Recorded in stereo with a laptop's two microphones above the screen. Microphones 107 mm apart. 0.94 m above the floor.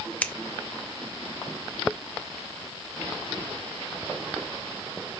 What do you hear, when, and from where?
0.2 s scissors: 15° left (ahead or behind), 0.5 m